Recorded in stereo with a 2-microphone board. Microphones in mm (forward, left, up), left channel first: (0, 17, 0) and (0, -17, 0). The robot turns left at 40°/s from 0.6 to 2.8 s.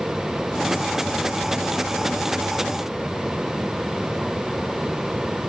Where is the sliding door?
I don't hear a sliding door.